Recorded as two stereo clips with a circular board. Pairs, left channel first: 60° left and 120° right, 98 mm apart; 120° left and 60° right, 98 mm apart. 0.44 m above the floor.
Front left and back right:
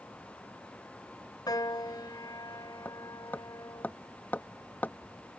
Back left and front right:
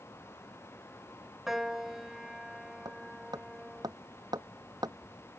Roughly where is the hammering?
Ahead.